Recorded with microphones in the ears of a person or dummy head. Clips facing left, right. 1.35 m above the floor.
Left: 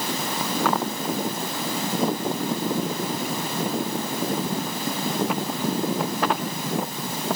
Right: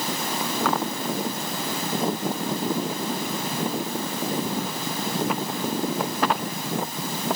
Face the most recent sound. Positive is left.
No sound to turn to.